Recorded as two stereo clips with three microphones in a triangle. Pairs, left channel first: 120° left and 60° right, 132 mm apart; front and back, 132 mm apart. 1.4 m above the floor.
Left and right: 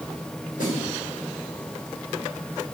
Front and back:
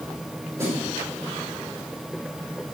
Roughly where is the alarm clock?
I don't hear an alarm clock.